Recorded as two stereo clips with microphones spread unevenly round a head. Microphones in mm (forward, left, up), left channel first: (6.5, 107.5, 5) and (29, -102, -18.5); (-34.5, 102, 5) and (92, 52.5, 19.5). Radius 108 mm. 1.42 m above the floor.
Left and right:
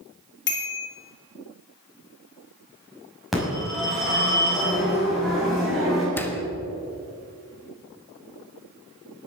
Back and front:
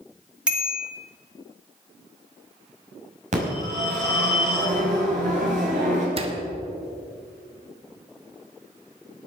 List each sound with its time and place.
0.5 s a bicycle bell: 60° left, 2.5 m
3.3 s a phone ringing: 5° left, 6 m
6.2 s a door slam: 20° left, 1.5 m